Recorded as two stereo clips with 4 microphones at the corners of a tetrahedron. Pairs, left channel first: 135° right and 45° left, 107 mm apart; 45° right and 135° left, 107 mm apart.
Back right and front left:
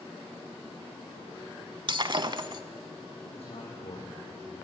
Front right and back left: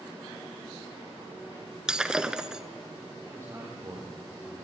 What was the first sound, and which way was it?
Breaking glass, 55° left.